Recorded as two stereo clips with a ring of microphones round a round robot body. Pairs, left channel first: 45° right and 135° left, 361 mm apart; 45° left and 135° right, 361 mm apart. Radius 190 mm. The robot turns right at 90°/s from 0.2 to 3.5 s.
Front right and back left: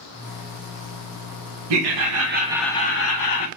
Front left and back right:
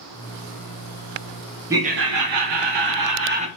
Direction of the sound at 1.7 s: 140° left.